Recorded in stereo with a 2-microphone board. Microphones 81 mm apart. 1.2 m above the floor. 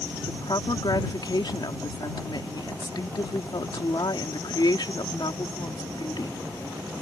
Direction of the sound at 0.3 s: 70° left (ahead or behind).